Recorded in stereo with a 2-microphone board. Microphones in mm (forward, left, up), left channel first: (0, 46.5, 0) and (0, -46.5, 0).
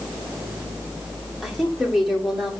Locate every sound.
1.4 s a woman speaking: centre (ahead or behind), 2 m